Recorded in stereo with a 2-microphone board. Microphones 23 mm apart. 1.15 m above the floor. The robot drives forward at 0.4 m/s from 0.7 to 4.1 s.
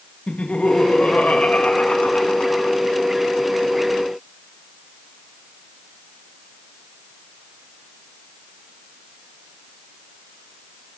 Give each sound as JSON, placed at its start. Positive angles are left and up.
{"t": 0.3, "sound": "laughter", "side_deg": 75, "distance_m": 1.7}